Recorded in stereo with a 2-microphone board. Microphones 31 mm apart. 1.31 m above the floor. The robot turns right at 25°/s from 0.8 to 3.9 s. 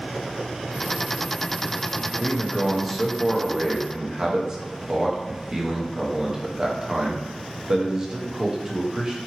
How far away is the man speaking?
About 0.7 m.